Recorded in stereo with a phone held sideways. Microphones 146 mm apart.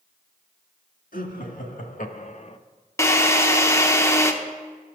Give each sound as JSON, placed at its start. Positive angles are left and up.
{"t": 1.1, "sound": "laughter", "side_deg": 75, "distance_m": 2.0}
{"t": 3.0, "sound": "a drill", "side_deg": 20, "distance_m": 0.9}